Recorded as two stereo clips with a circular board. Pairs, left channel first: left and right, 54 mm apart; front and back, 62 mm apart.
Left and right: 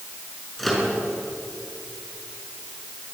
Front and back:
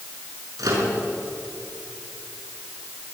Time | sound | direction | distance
0.6 | a microwave | 175° left | 5.5 m